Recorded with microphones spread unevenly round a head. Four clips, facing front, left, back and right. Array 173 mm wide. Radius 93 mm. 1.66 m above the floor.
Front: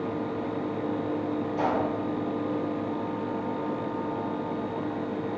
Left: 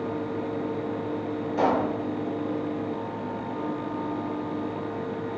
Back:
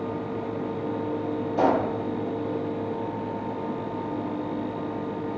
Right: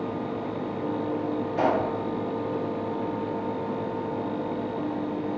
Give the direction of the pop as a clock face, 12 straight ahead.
7 o'clock.